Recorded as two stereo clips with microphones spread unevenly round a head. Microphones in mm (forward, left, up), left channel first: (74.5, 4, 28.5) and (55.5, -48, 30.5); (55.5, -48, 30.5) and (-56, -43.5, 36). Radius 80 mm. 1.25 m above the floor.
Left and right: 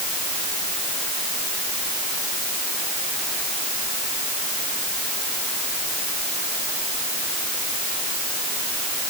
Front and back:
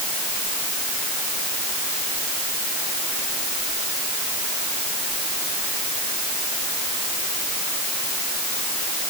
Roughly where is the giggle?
I don't hear a giggle.